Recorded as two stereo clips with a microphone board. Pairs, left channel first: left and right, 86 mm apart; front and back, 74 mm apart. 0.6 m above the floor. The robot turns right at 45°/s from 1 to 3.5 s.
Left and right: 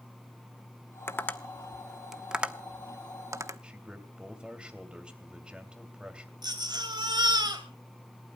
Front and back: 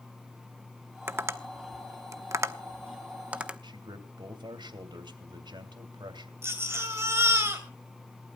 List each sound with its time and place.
1.1 s tapping: 140° left, 0.8 m; by 3.6 s 110° right, 0.8 m
3.6 s a man speaking: 170° right, 2.5 m
6.4 s a baby crying: 125° right, 3 m